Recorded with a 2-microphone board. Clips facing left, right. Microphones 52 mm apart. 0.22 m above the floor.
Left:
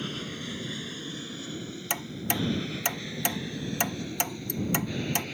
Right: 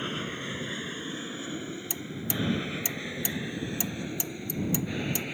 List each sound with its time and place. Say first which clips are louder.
0.0 s an aircraft: right 2 dB; 25° right (ahead or behind); by 5.3 s 15° right (ahead or behind)
1.9 s ticking: left 7 dB; 60° left (ahead or behind)